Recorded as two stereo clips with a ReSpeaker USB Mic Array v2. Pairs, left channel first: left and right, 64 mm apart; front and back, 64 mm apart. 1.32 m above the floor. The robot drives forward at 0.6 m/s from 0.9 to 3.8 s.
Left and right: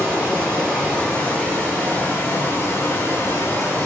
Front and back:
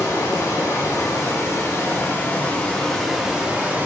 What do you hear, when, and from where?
0.0 s running water: 25° left, 1.6 m; by 3.9 s 125° left, 1.0 m